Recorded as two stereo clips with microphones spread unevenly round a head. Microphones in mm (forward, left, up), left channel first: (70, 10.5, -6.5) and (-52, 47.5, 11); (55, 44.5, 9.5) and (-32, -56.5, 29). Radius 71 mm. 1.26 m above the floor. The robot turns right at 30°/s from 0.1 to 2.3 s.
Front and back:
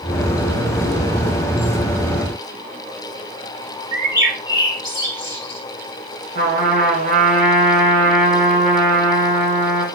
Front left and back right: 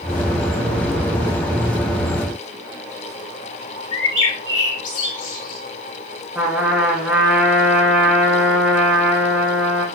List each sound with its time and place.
3.9 s a bird: 105° left, 7 m
6.3 s a trumpet: 145° left, 6 m